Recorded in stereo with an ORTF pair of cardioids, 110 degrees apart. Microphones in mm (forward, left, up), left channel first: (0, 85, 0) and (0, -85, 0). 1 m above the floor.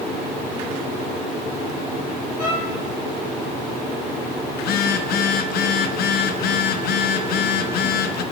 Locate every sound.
2.4 s a violin: 50° left, 7.5 m
4.6 s a phone buzzing: 65° left, 0.9 m